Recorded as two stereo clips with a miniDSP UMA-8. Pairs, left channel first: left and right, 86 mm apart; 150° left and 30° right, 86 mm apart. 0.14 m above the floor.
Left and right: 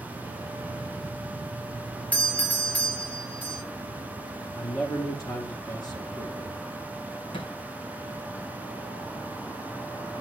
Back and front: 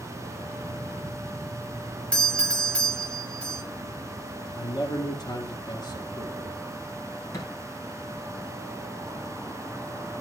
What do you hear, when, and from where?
2.1 s a doorbell: 105° left, 1.8 m
4.6 s a man speaking: 125° left, 2.5 m
7.3 s a thud: 95° left, 2.5 m